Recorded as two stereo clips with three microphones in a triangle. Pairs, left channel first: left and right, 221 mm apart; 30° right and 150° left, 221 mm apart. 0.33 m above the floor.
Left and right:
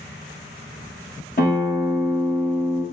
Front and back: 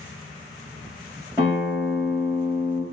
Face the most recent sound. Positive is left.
turn(degrees=75)